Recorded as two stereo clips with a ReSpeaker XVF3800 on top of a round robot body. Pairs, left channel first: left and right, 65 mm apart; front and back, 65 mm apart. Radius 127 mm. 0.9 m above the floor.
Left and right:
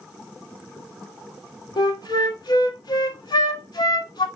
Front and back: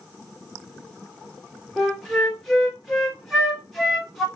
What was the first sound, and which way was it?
A flute, 90° left.